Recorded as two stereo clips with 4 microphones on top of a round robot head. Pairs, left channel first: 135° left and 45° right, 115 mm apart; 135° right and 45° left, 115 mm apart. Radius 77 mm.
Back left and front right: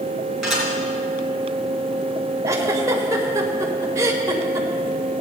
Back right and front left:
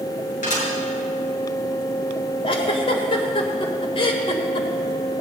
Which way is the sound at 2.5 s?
105° right.